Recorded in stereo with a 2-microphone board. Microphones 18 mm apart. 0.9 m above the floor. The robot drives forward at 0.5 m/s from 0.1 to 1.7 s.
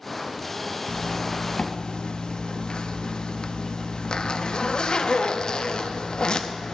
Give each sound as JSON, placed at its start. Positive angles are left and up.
{"t": 0.9, "sound": "a zipper", "side_deg": 75, "distance_m": 0.6}